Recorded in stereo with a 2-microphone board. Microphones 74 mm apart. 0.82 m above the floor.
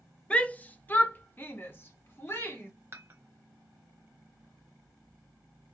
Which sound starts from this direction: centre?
A shout, at 0.3 s.